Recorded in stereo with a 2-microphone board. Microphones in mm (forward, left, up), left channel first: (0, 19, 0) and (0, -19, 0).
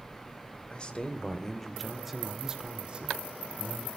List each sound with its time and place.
0.7 s a man speaking: 25° left (ahead or behind), 2 m; by 3.9 s 50° right (ahead or behind), 2 m